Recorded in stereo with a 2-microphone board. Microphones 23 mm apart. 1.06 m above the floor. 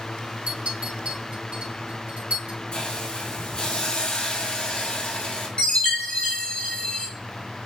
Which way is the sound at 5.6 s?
60° left (ahead or behind).